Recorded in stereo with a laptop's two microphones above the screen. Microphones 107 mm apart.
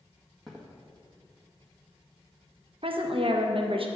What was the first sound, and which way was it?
Footsteps, centre (ahead or behind).